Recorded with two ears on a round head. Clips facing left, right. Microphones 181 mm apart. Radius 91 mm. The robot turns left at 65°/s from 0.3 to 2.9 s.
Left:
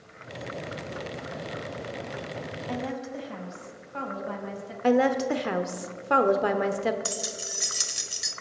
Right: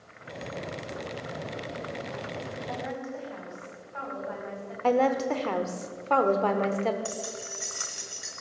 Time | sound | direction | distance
2.7 | a woman speaking | 40° left (ahead or behind) | 3.5 m
4.8 | a woman speaking | 15° left (ahead or behind) | 0.8 m
7.0 | keys jangling | 50° left (ahead or behind) | 1.3 m